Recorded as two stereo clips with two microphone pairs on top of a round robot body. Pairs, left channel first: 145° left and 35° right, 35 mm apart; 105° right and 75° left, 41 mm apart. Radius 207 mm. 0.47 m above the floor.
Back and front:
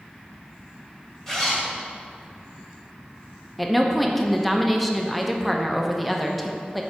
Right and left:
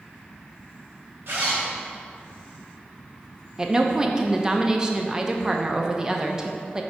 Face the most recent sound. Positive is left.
turn(degrees=40)